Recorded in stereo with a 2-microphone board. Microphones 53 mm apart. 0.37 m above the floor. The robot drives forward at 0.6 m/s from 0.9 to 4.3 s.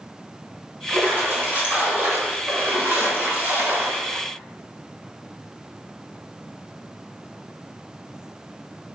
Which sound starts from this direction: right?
A splash, at 0.9 s.